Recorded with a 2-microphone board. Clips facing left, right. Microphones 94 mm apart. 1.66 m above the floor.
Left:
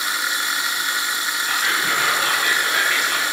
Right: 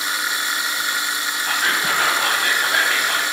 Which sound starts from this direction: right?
Whispering, at 1.4 s.